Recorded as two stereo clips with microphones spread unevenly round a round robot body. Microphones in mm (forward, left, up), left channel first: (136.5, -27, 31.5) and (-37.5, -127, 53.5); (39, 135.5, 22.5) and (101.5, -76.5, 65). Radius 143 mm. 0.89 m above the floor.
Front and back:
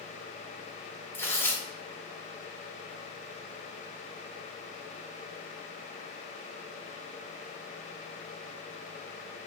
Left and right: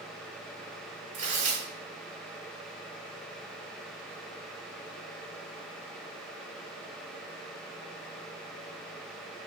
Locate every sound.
1.1 s tearing paper: 50° right, 1.2 m